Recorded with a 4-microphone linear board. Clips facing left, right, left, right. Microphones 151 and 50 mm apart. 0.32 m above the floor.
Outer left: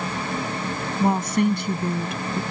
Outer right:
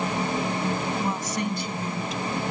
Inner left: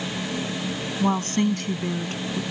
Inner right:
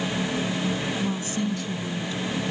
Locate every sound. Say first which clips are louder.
1.0 s a woman speaking: outer left 7 dB, inner left 5 dB; 60° left (ahead or behind)